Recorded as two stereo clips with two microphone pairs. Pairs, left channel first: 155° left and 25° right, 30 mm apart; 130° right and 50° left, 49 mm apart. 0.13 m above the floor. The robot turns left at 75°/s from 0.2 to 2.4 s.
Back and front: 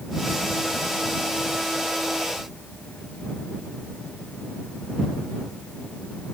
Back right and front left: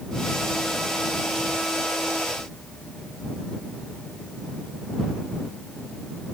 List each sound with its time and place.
Only background noise.